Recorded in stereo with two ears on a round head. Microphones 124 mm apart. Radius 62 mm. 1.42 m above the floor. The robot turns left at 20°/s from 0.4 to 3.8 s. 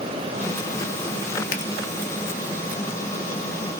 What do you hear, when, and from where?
1.5 s a finger snap: 60° left (ahead or behind), 2.5 m